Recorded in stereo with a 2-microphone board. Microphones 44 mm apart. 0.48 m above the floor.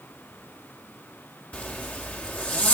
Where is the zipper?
35° left (ahead or behind), 2.5 m.